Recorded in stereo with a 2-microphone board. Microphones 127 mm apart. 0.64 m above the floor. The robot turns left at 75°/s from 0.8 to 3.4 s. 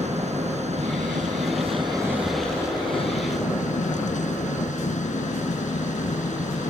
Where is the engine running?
65° right; by 6.7 s 100° left.